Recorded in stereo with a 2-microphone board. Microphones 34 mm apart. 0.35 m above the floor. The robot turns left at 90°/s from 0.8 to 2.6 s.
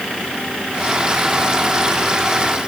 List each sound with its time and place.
Only background noise.